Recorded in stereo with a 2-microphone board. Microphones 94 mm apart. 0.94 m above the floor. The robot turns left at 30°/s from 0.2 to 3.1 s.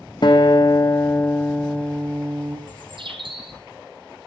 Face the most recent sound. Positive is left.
turn(degrees=-60)  # may be behind; listen again after turning